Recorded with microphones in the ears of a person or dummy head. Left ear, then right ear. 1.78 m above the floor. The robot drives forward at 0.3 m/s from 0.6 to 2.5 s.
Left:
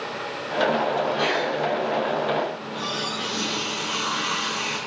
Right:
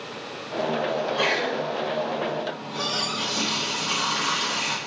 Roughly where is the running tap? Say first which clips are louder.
Right 1 dB; right.